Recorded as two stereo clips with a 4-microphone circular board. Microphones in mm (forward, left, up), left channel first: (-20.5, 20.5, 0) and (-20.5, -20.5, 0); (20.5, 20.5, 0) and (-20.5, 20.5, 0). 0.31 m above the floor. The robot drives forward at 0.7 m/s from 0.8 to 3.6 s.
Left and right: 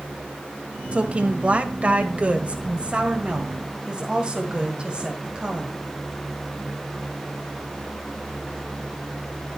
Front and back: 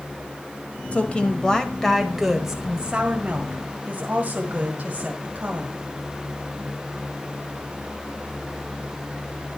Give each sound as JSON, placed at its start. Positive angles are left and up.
{"t": 0.9, "sound": "a woman speaking", "azimuth_deg": -40, "distance_m": 1.6}